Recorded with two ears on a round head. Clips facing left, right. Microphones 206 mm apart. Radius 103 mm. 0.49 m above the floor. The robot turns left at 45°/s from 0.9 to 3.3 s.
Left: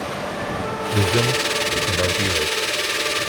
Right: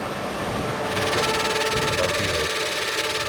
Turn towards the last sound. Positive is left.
turn(degrees=-20)